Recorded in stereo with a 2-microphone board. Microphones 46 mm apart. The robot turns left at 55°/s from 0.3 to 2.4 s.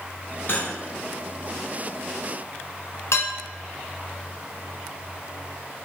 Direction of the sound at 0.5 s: 40° left (ahead or behind).